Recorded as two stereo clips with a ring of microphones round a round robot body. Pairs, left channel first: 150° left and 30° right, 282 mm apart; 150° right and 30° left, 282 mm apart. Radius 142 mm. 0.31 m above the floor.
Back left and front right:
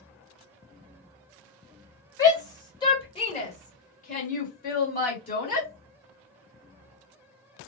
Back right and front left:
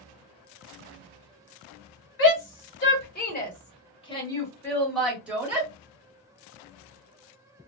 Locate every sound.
2.2 s a shout: 135° right, 1.6 m; by 5.7 s 105° left, 1.6 m